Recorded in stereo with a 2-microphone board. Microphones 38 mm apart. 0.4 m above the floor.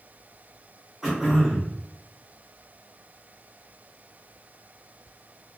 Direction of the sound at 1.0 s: 5° right (ahead or behind).